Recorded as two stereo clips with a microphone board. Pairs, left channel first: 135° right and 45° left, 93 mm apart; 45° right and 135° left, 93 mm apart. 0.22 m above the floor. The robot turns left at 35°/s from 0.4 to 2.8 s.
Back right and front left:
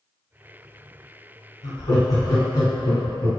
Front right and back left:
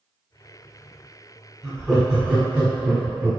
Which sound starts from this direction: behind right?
Laughter, at 1.6 s.